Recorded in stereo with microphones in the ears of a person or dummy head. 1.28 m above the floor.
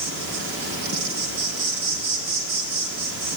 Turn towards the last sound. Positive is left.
turn(degrees=-55)  # may be behind; listen again after turning